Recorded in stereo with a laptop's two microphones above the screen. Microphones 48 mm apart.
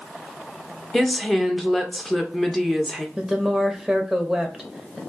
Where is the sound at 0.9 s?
Centre (ahead or behind), 0.7 m.